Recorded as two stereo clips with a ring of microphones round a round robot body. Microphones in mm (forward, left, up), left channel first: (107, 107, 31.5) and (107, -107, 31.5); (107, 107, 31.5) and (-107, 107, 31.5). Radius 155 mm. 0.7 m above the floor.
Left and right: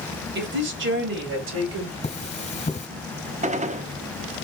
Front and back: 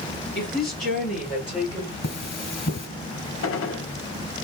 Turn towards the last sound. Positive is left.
turn(degrees=-30)